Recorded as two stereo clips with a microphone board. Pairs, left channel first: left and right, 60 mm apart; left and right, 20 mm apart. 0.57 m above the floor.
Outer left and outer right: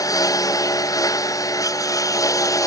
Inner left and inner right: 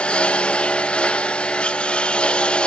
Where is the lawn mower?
80° left; by 2.7 s 70° left (ahead or behind).